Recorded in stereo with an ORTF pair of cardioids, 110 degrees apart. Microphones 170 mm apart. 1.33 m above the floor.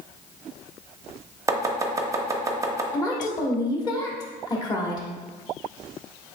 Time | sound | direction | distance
1.5 | chopping | 20° right | 0.7 m
2.9 | a woman speaking | 25° left | 1.3 m